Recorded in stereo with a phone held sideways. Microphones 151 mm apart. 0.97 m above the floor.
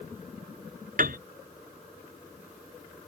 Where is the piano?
65° right (ahead or behind).